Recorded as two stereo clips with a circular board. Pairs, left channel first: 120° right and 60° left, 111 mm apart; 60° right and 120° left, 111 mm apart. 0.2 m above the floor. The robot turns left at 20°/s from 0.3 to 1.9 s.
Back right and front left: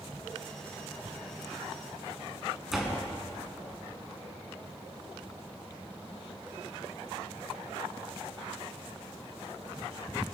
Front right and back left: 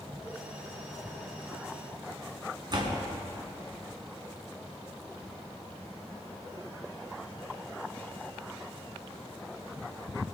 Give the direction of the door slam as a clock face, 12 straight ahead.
7 o'clock.